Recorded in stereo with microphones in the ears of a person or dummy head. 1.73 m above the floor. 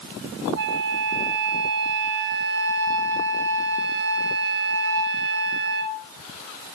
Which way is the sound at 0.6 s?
55° right (ahead or behind).